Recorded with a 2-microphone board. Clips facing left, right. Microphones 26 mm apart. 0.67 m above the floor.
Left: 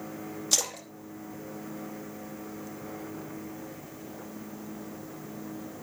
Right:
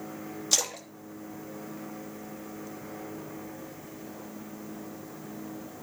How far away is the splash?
About 1.2 m.